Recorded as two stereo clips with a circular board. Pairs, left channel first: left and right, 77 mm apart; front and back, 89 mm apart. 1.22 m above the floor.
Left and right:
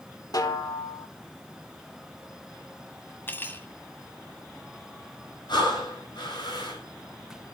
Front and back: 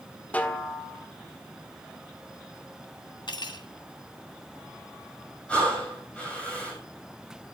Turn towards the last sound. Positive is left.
turn(degrees=75)